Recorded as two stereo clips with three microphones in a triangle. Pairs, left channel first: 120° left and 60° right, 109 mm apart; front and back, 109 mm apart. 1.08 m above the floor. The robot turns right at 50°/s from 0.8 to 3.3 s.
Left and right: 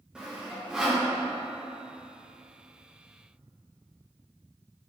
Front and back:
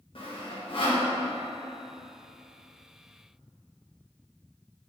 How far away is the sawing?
About 1.4 m.